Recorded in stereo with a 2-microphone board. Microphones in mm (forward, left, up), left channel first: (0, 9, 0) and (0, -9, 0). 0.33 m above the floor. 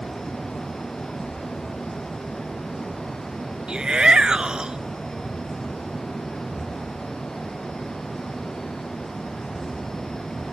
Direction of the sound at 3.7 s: 55° right (ahead or behind).